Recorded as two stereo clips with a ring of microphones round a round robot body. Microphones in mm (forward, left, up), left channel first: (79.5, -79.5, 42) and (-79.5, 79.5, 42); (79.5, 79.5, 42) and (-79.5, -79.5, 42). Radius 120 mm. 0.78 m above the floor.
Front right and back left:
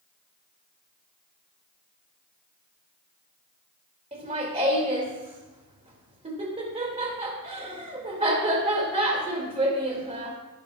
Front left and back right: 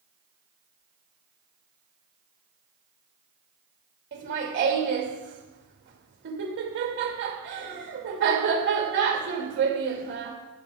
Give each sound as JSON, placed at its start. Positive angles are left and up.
{"t": 4.1, "sound": "laughter", "azimuth_deg": -165, "distance_m": 2.0}